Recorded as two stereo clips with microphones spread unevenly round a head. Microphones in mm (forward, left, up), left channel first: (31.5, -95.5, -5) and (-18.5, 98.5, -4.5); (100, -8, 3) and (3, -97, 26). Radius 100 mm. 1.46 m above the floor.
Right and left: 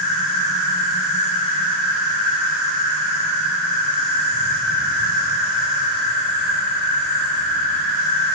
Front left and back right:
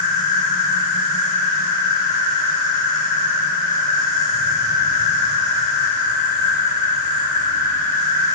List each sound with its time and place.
0.0 s an insect: 115° right, 1.8 m